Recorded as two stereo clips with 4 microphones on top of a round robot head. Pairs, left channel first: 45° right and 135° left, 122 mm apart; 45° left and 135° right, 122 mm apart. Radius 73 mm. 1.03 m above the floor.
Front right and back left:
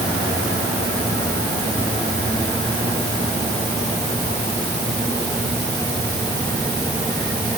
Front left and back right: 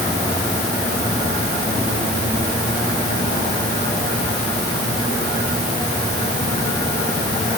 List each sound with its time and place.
Only background noise.